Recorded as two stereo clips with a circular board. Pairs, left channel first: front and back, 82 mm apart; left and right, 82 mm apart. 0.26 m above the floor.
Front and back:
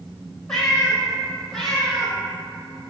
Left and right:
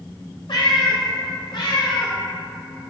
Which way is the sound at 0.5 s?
85° left.